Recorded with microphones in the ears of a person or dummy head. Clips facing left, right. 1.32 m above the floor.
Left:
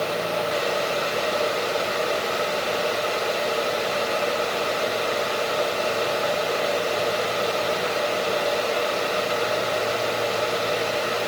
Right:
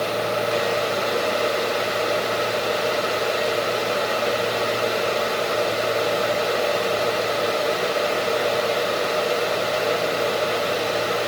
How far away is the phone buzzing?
I don't hear a phone buzzing.